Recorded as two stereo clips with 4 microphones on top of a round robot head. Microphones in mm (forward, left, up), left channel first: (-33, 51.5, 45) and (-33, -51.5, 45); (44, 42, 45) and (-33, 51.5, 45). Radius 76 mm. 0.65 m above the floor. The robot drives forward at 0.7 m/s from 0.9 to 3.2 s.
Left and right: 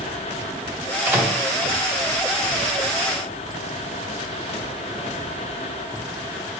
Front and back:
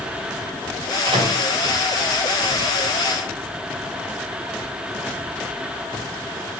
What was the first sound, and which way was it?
A microwave, 160° right.